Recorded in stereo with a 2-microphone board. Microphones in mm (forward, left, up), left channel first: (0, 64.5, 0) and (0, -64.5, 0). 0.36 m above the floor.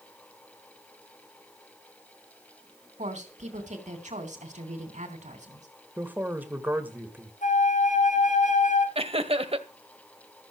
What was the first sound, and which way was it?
A woman speaking, 70° right (ahead or behind).